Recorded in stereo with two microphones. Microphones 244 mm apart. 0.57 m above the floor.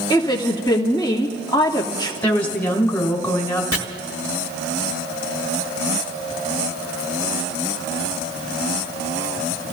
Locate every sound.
0.1 s a woman speaking: 15° left (ahead or behind), 1.1 m
2.2 s a woman speaking: 10° left (ahead or behind), 3 m
3.7 s chopping: 65° left (ahead or behind), 1.4 m